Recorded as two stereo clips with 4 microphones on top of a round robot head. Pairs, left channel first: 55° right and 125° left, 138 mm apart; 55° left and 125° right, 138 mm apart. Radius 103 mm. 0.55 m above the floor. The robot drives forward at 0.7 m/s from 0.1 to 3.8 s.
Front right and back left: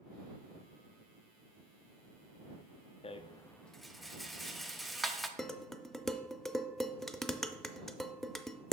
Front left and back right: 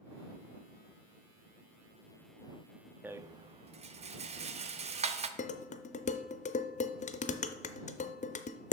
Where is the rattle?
55° right, 0.5 m; by 5.3 s 145° right, 0.6 m.